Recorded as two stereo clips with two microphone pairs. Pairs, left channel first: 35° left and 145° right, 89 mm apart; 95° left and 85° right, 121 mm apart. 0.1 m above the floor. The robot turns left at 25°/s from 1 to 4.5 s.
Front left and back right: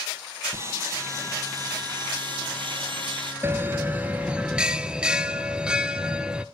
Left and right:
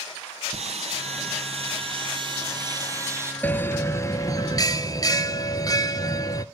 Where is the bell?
170° left, 0.6 m; by 6.5 s 140° left, 0.6 m.